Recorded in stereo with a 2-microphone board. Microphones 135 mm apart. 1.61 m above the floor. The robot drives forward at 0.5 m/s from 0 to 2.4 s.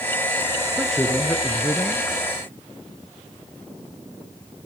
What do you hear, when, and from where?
0.8 s a man speaking: 5° left (ahead or behind), 1.5 m